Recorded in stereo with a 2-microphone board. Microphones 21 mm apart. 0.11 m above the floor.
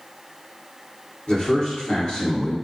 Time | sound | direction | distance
1.3 | a man speaking | 45° left (ahead or behind) | 1.9 m